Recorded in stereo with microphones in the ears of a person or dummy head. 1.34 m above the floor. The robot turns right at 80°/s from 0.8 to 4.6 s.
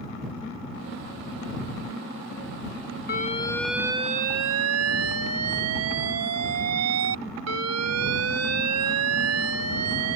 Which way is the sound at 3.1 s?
135° left.